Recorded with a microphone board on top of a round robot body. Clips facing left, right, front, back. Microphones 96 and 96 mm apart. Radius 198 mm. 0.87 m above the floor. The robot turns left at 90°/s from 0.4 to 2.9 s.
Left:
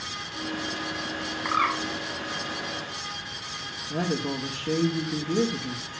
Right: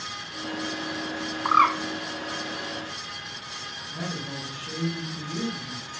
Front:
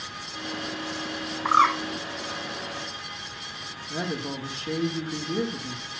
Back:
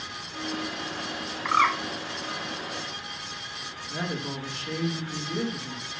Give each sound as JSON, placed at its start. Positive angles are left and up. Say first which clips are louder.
{"t": 1.4, "sound": "a bird", "louder": "right 6 dB, front 3 dB", "azimuth_deg": -50, "distance_m": 1.3}
{"t": 3.9, "sound": "a woman speaking", "louder": "left 7 dB, front 2 dB", "azimuth_deg": 65, "distance_m": 2.5}